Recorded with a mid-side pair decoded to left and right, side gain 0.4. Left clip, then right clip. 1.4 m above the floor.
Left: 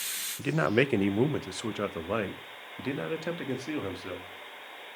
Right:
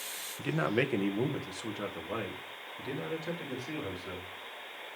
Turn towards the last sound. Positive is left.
turn(degrees=75)